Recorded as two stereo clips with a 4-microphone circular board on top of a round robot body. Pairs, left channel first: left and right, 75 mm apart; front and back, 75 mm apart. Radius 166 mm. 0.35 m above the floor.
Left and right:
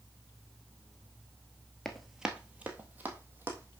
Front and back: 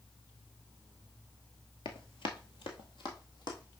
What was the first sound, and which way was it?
Running footsteps, 10° left.